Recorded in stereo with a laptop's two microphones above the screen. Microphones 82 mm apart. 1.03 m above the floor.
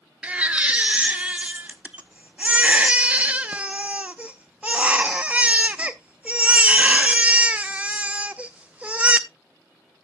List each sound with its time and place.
0.2 s a baby crying: 20° right (ahead or behind), 0.5 m